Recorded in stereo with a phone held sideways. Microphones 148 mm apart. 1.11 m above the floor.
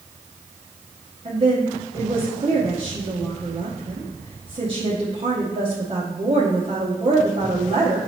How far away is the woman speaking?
About 0.9 m.